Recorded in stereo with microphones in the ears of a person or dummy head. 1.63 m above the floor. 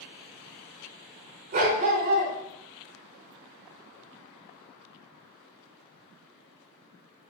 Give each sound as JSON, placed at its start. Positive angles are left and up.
{"t": 1.5, "sound": "a dog barking", "side_deg": -40, "distance_m": 1.8}